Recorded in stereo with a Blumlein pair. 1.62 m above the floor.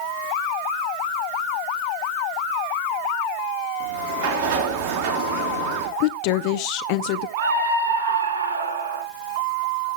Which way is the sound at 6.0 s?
45° left.